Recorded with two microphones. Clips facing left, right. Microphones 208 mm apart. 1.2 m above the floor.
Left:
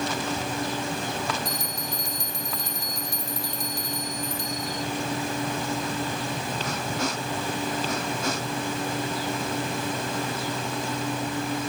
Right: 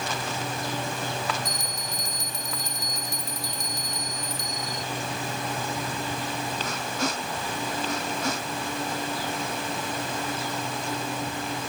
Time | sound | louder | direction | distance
1.4 | a bell | left 3 dB | 40° right (ahead or behind) | ?